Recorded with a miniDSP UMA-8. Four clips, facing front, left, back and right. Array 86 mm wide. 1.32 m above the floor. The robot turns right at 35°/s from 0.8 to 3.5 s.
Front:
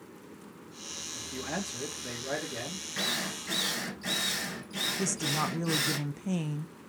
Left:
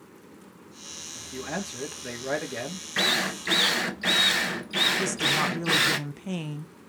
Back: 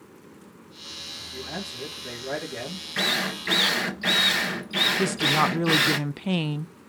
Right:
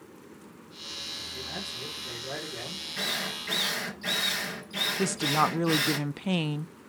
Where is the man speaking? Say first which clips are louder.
Left 8 dB, even; 50° left, 3 m; by 2.9 s 110° left, 3 m.